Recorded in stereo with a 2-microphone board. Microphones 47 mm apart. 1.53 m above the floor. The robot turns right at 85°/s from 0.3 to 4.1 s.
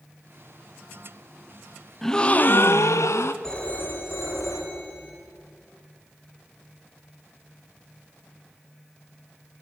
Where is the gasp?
5° left, 0.9 m; by 3.3 s 120° left, 0.9 m.